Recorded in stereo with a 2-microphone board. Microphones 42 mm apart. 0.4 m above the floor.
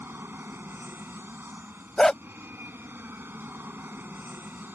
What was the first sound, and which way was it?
An aircraft, 60° right (ahead or behind).